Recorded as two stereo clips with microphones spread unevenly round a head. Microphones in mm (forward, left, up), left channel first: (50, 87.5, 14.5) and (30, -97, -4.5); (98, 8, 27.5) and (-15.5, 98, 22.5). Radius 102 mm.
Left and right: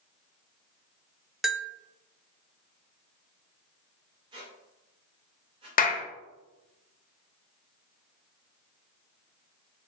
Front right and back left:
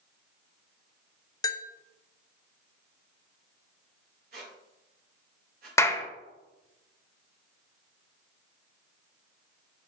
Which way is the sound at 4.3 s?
170° right.